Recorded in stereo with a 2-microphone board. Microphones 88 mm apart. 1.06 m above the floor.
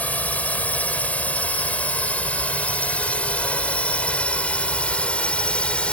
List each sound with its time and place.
0.0 s a drone: 15° left (ahead or behind); by 5.9 s 10° left (ahead or behind)